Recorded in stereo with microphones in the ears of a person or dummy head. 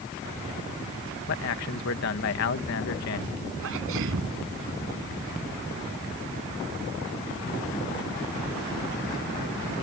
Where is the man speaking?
60° left (ahead or behind).